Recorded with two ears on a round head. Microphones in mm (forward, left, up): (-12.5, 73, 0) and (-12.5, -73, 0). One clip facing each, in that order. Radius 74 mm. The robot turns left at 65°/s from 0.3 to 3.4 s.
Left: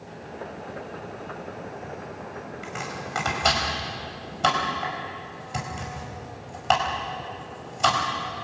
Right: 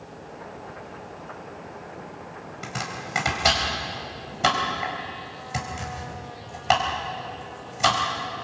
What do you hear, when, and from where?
2.6 s chopping: 55° right (ahead or behind), 4.5 m; by 8.0 s 5° right (ahead or behind), 4.5 m